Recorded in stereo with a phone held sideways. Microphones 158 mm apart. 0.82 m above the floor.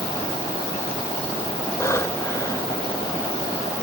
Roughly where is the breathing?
Centre.